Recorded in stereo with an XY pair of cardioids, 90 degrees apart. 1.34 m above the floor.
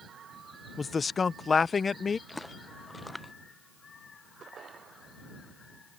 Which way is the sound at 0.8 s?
45° left.